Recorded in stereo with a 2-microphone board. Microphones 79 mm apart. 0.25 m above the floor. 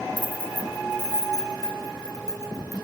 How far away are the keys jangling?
About 1.9 m.